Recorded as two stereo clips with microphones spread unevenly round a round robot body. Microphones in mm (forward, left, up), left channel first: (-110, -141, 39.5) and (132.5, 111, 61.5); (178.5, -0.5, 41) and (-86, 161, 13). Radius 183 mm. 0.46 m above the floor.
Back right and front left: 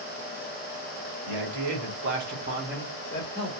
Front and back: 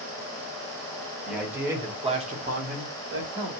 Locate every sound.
1.2 s a man speaking: 65° left, 1.6 m; by 3.5 s 165° left, 1.3 m